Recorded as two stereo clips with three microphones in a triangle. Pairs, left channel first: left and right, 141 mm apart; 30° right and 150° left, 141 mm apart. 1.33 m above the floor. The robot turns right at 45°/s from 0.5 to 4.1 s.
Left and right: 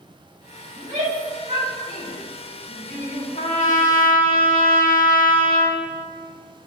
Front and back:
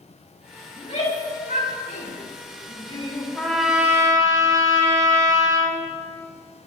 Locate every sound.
0.8 s a shout: 80° right, 7.5 m; by 3.2 s 30° left, 7.5 m
3.4 s a trumpet: 50° left, 2.5 m; by 5.8 s 85° left, 2.5 m